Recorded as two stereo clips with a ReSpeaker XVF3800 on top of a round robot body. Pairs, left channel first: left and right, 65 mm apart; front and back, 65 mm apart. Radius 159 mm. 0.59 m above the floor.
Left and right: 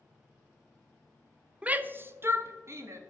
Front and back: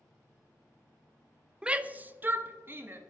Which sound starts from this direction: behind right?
A shout, at 1.6 s.